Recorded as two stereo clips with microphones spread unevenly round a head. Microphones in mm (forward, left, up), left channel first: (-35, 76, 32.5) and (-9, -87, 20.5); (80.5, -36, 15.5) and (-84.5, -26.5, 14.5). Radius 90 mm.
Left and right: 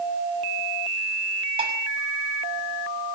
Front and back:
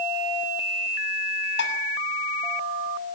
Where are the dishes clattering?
20° right, 6.5 m.